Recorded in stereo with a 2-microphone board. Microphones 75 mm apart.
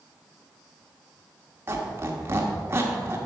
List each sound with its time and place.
1.7 s a squeak: 30° right (ahead or behind), 1.2 m